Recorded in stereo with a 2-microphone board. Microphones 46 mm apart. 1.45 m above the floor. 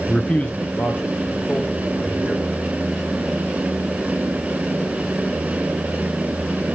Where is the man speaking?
20° left (ahead or behind), 0.5 m; by 2.5 s 55° left (ahead or behind), 3 m.